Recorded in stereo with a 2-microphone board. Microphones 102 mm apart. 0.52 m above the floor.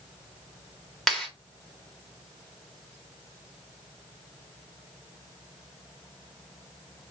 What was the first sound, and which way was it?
A clap, 5° left (ahead or behind).